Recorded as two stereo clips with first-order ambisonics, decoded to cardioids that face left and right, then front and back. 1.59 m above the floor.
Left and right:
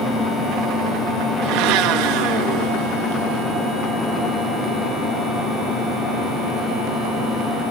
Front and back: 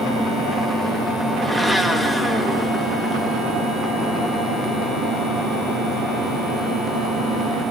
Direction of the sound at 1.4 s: 90° right.